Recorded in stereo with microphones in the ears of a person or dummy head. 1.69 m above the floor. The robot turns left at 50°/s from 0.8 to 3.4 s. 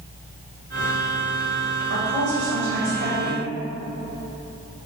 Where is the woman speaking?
80° right, 1.6 m; by 3.4 s 155° right, 1.6 m.